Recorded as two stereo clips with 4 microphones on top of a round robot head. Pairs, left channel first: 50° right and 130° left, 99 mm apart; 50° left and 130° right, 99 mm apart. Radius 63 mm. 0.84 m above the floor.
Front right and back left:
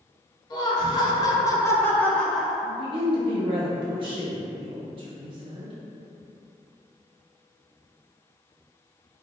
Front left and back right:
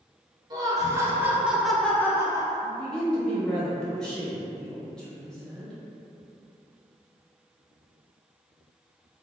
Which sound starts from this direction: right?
Laughter, at 0.5 s.